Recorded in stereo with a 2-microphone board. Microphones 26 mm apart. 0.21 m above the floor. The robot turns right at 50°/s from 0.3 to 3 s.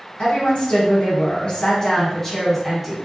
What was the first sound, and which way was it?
A woman speaking, 65° left.